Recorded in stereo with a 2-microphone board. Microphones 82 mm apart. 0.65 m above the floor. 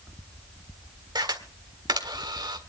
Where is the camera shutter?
60° right (ahead or behind), 1.7 m.